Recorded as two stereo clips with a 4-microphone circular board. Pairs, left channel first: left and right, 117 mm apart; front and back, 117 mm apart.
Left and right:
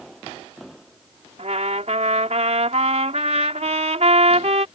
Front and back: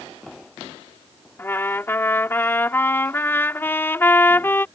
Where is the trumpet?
70° right.